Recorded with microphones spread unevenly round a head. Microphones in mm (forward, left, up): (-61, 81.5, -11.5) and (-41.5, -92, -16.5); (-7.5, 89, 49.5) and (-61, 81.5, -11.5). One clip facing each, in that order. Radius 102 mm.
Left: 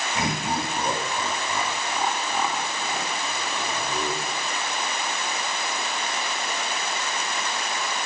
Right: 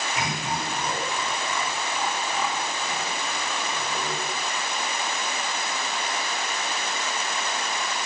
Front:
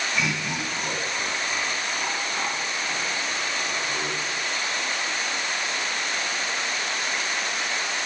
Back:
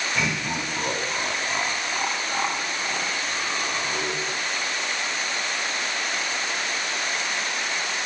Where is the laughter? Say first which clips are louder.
Left 5 dB, back 2 dB; 155° left, 4 m.